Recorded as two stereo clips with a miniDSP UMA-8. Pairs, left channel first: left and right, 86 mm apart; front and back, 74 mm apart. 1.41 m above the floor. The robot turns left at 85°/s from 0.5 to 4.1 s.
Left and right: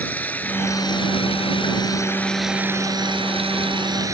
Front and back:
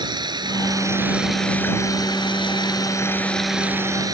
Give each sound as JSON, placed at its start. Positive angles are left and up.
{"t": 0.0, "sound": "running water", "azimuth_deg": 160}